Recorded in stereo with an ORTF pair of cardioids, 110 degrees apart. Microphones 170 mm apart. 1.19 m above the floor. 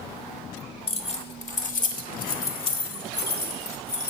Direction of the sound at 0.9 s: 30° left.